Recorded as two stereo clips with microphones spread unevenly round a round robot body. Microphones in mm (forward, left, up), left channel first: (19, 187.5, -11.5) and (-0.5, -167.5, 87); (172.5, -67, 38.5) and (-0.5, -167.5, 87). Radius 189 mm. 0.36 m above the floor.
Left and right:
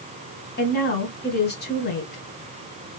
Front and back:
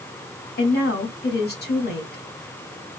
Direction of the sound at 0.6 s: 35° left.